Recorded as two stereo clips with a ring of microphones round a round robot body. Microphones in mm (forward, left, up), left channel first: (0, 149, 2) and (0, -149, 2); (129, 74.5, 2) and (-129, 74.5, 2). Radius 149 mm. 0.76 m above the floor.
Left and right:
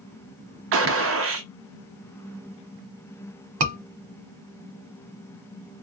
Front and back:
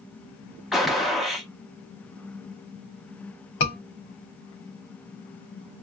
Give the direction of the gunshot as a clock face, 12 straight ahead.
3 o'clock.